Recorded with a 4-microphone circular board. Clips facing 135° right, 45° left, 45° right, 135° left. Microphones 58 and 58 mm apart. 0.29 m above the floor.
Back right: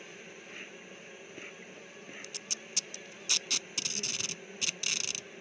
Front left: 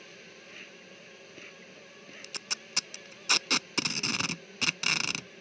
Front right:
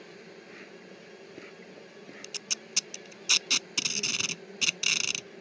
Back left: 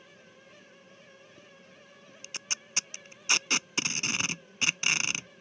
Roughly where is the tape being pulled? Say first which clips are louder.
Front left 4 dB, back left 4 dB; left.